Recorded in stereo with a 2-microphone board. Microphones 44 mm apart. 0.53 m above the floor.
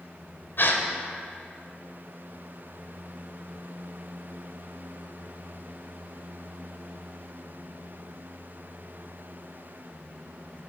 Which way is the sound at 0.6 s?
55° left (ahead or behind).